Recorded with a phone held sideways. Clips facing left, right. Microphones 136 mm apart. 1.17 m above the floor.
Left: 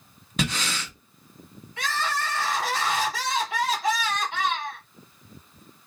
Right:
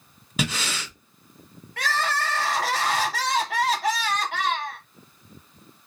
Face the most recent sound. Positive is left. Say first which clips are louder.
# right 2 dB
turn(degrees=-65)  # may be behind; listen again after turning